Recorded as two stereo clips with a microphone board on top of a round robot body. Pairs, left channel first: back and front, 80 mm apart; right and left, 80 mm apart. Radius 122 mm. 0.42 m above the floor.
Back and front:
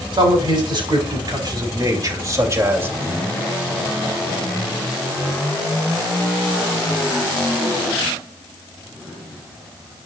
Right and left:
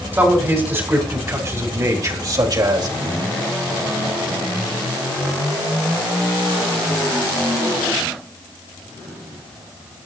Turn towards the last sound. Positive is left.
turn(degrees=65)